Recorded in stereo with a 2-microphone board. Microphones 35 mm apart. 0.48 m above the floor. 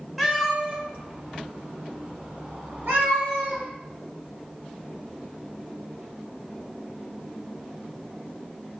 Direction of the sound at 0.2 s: 5° right (ahead or behind).